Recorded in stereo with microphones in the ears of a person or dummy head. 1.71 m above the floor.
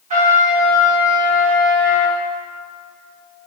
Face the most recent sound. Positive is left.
turn(degrees=-40)  # may be behind; listen again after turning